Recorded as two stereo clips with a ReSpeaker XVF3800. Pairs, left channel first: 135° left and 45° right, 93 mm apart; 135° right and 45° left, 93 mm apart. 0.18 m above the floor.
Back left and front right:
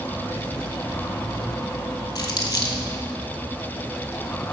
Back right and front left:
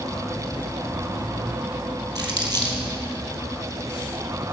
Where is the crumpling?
90° left, 1.9 m.